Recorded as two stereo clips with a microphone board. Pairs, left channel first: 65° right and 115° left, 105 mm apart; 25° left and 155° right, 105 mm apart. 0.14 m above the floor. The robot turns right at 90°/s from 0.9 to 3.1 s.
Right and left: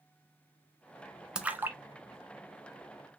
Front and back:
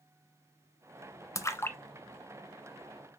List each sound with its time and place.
1.4 s a splash: 35° left, 0.6 m; by 1.8 s 75° left, 0.6 m